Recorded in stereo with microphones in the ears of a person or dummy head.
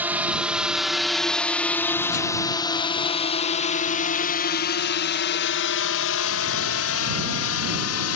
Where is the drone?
5° right (ahead or behind); by 8.2 s 70° left (ahead or behind).